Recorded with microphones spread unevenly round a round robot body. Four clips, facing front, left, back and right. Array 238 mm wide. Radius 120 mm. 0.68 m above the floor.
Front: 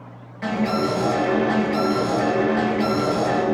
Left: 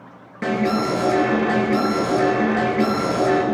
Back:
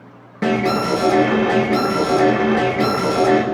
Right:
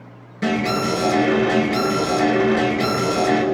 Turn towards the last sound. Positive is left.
turn(degrees=175)